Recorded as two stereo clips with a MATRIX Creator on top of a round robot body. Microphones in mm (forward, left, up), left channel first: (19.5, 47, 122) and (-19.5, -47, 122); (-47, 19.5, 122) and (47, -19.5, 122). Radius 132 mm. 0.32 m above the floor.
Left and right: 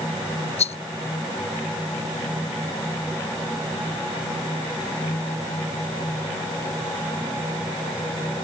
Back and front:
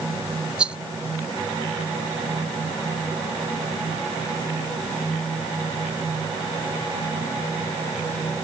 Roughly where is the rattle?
Ahead left.